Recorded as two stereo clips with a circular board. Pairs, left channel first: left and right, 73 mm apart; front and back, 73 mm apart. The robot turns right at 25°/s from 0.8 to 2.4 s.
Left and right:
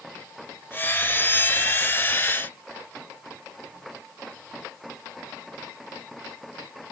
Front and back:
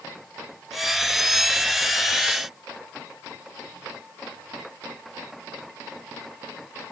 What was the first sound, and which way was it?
Only background noise.